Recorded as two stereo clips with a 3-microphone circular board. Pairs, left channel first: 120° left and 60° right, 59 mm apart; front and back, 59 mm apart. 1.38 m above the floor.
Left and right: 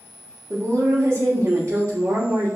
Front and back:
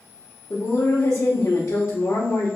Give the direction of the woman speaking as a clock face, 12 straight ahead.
1 o'clock.